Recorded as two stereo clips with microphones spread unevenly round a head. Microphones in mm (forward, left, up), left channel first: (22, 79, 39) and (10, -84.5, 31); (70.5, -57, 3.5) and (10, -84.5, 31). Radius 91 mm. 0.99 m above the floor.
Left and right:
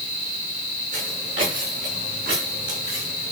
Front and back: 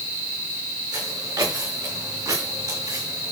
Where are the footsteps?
140° right, 9 m; by 3.3 s 130° right, 9.5 m.